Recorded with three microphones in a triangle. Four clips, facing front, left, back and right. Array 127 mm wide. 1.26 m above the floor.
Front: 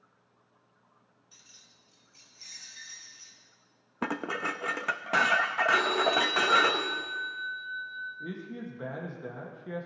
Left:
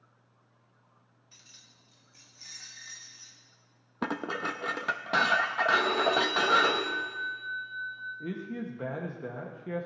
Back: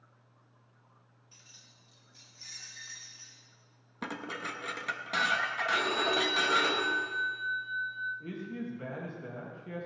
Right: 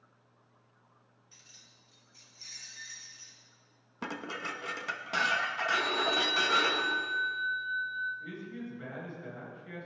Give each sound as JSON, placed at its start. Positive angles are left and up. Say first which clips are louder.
{"t": 1.3, "sound": "keys jangling", "louder": "left 3 dB, back 1 dB", "azimuth_deg": 80, "distance_m": 1.9}
{"t": 4.0, "sound": "dishes clattering", "louder": "left 6 dB, front 6 dB", "azimuth_deg": 45, "distance_m": 0.7}
{"t": 5.7, "sound": "a phone ringing", "louder": "left 5 dB, front 3 dB", "azimuth_deg": 75, "distance_m": 5.0}
{"t": 8.2, "sound": "a man speaking", "louder": "left 5 dB, even", "azimuth_deg": 75, "distance_m": 1.9}